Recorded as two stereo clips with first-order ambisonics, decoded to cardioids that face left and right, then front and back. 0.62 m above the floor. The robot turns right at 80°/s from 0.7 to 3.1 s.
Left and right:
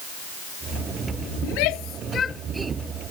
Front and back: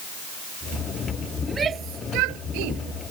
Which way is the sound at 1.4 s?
95° left.